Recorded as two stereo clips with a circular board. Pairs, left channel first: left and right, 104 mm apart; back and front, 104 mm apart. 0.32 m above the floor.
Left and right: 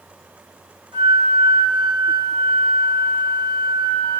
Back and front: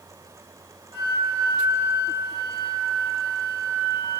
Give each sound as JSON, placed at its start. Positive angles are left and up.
{"t": 0.9, "sound": "a flute", "azimuth_deg": -45, "distance_m": 3.5}